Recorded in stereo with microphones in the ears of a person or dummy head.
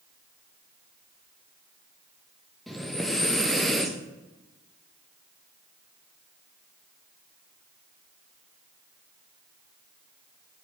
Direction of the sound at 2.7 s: Centre (ahead or behind).